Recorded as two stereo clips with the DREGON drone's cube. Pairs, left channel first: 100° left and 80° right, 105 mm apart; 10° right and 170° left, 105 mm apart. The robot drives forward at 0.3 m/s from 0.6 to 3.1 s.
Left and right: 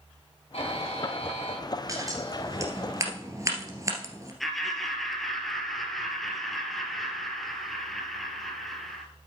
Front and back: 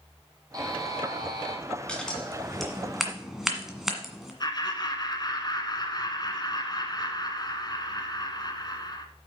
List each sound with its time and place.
0.5 s a buzzer: 120° left, 3 m
1.9 s scissors: 85° right, 1.8 m; by 4.3 s 105° right, 1.8 m
4.4 s laughter: 10° left, 1.5 m